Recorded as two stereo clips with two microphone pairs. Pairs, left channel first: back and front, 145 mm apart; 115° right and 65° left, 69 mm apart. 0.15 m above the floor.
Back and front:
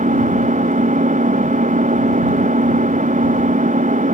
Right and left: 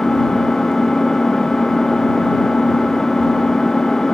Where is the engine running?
30° right.